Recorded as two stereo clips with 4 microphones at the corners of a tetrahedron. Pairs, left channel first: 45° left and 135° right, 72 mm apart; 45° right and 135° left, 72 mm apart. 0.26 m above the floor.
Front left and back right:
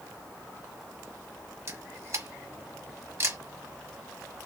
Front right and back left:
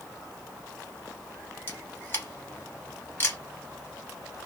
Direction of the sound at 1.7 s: 95° right.